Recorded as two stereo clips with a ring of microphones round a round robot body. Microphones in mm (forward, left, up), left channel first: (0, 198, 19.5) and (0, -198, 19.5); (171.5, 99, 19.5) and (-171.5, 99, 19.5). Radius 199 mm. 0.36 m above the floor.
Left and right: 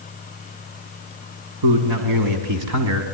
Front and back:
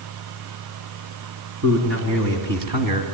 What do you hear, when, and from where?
1.6 s a man speaking: 120° right, 4 m; by 3.0 s 145° right, 3 m